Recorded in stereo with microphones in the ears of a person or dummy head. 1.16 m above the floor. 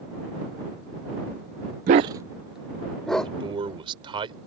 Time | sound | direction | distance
1.9 | a dog barking | 35° right (ahead or behind) | ?
3.2 | a man speaking | 30° right (ahead or behind) | ?